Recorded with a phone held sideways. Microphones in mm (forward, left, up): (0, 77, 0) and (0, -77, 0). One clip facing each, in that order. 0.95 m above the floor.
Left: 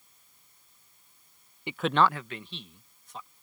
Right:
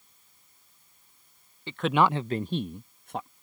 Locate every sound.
1.7 s a man speaking: 15° left (ahead or behind); by 3.3 s 65° right (ahead or behind)